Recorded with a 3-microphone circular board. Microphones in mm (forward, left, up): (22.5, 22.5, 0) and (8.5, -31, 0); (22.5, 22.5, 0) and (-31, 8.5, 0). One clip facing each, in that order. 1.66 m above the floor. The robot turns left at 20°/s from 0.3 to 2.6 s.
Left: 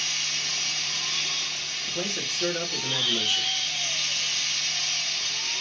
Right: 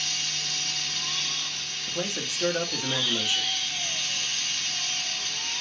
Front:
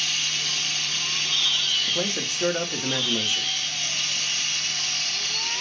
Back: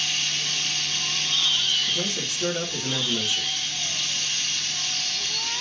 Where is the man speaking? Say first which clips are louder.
Right 1 dB, front 1 dB; 15° right, 1.0 m; by 3.5 s 30° right, 1.0 m.